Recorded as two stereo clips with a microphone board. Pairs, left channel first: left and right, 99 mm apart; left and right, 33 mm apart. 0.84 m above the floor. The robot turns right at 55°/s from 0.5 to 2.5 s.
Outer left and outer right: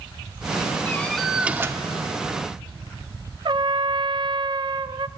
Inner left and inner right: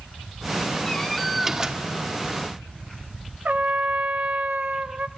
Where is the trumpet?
55° right (ahead or behind), 0.6 m.